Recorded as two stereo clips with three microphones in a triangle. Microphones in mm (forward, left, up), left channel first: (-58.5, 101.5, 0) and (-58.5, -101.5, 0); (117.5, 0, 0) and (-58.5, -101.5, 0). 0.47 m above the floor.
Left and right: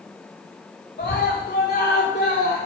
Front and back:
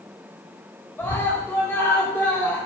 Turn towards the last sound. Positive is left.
turn(degrees=105)